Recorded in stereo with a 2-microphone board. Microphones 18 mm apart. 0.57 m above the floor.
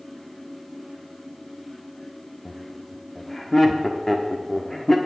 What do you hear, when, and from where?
2.5 s laughter: 20° left (ahead or behind), 1.1 m